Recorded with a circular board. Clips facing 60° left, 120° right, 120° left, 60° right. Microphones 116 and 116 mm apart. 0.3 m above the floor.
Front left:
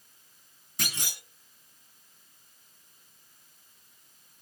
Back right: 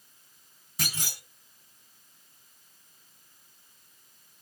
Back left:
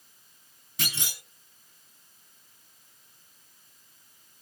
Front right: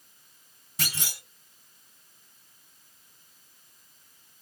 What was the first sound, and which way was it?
A clunk, 40° right.